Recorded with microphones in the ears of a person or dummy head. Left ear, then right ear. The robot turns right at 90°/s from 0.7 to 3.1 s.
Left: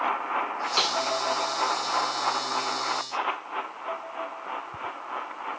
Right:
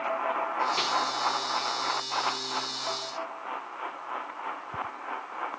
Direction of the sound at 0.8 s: 25° left (ahead or behind).